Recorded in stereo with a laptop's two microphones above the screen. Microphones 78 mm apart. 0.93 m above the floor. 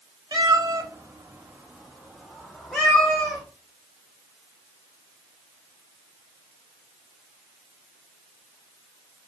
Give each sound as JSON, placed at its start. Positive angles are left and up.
{"t": 0.3, "sound": "a cat meowing", "side_deg": -60, "distance_m": 0.7}